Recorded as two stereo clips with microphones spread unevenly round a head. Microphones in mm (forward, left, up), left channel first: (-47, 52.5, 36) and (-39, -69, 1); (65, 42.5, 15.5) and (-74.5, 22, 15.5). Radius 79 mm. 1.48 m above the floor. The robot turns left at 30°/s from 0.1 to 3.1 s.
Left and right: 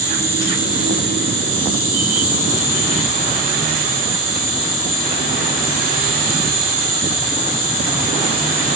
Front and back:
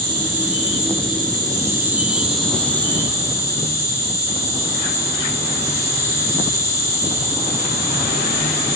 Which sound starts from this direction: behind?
An insect, at 0.0 s.